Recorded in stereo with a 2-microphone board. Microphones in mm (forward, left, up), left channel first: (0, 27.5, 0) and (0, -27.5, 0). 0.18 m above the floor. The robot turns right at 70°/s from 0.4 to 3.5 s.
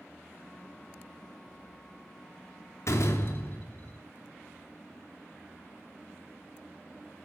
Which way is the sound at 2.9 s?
100° left.